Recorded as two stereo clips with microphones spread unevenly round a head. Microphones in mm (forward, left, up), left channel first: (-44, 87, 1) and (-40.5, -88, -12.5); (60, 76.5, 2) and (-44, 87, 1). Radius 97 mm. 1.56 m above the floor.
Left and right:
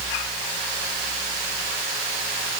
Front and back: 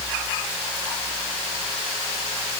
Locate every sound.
Only background noise.